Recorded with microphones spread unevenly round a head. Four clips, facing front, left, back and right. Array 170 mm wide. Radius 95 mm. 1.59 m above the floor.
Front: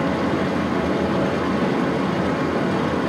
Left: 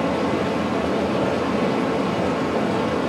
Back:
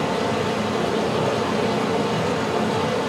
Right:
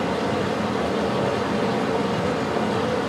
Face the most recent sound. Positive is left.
turn(degrees=35)